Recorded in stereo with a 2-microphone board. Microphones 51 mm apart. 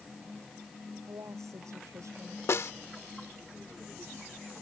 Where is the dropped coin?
I don't hear a dropped coin.